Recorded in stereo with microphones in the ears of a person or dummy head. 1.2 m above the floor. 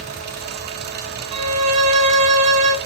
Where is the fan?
55° right (ahead or behind), 1.0 m.